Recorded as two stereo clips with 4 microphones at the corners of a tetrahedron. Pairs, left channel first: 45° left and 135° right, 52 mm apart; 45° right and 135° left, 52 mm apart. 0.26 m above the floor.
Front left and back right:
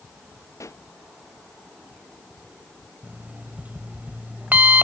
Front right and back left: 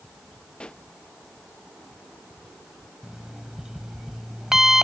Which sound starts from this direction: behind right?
An alarm clock, at 3.0 s.